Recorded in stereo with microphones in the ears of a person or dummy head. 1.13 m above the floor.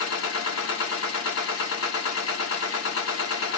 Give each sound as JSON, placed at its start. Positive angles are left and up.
{"t": 0.0, "sound": "a machine running", "side_deg": 65, "distance_m": 1.6}